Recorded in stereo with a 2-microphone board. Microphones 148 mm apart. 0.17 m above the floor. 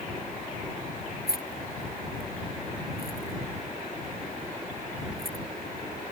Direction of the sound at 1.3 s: 75° left (ahead or behind).